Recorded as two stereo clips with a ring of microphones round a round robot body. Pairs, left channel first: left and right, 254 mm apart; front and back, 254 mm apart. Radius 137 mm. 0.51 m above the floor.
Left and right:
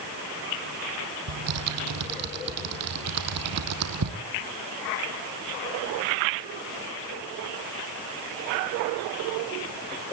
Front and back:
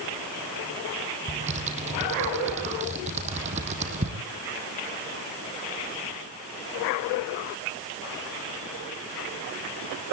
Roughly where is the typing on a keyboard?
Behind right.